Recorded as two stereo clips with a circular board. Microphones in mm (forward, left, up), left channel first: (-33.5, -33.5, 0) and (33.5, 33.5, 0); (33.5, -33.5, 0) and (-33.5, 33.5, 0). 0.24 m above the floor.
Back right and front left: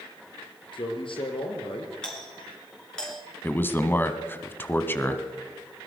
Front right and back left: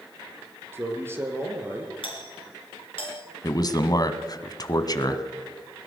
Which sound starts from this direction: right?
A man speaking, at 3.4 s.